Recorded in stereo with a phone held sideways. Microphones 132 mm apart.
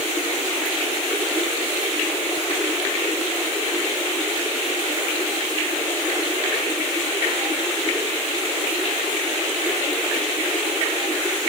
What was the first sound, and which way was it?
Only background noise.